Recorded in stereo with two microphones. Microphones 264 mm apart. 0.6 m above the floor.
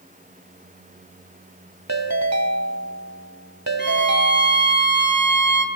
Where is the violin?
40° right (ahead or behind), 5 m.